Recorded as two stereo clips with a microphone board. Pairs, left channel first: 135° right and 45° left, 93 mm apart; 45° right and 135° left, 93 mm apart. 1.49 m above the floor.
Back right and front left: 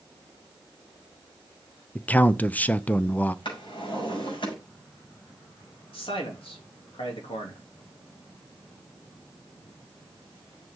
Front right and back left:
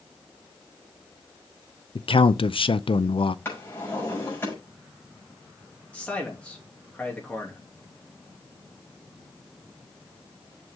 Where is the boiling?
No boiling in this recording.